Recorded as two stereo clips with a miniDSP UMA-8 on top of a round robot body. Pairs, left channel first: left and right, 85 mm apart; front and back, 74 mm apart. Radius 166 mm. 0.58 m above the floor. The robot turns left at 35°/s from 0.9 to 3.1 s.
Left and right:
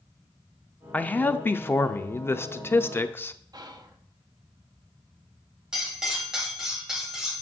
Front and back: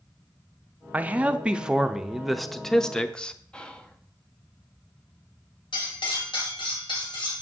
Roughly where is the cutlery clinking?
Ahead.